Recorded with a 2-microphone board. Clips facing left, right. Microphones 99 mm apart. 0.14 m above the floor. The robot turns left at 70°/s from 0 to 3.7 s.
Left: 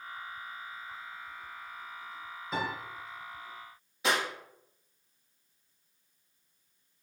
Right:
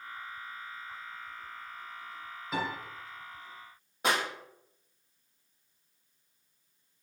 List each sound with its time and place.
2.5 s a piano: centre (ahead or behind), 1.9 m; by 2.7 s 10° right (ahead or behind), 1.9 m
4.0 s a clap: 50° right (ahead or behind), 2 m